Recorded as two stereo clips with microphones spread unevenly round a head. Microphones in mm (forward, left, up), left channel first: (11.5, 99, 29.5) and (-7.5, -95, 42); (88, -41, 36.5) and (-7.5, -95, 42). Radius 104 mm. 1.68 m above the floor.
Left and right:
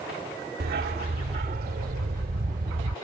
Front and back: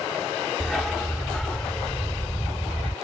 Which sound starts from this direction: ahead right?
A dog barking, at 0.6 s.